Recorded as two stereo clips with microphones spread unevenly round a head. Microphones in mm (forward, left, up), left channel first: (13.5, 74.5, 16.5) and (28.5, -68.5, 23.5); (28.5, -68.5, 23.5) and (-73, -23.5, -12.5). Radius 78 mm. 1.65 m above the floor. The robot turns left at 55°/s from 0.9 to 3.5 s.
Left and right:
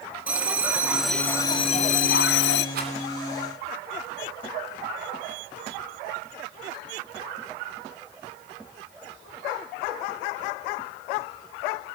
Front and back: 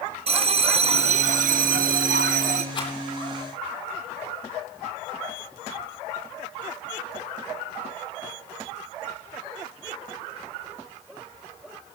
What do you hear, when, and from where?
0.3 s a bell: 165° right, 0.7 m; by 2.6 s 100° left, 0.7 m
2.8 s a rattle: 65° right, 10 m; by 2.9 s 75° right, 10 m